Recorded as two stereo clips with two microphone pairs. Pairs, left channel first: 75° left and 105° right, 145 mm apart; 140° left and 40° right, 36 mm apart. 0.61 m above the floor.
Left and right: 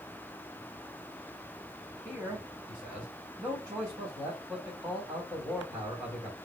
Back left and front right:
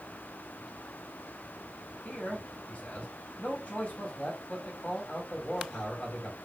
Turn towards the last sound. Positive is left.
turn(degrees=175)